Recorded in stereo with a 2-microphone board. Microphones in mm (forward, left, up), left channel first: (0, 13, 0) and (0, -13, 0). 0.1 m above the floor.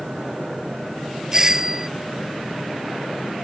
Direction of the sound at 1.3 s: 20° right (ahead or behind).